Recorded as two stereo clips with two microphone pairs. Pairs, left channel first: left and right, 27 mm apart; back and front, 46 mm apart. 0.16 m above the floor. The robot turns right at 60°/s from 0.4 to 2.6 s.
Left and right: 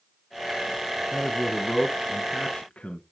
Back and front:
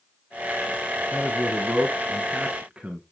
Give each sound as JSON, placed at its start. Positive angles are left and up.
{"t": 1.1, "sound": "a man speaking", "azimuth_deg": -30, "distance_m": 1.5}